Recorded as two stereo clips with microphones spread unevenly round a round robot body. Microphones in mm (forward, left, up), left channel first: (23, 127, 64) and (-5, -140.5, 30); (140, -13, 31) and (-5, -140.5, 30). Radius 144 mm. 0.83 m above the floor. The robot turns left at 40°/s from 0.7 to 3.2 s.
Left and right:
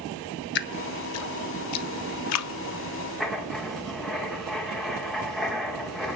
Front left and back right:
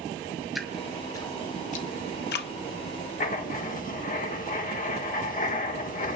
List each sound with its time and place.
0.6 s dripping: 135° left, 0.7 m; by 2.5 s 60° left, 0.7 m
3.2 s writing: 5° right, 1.7 m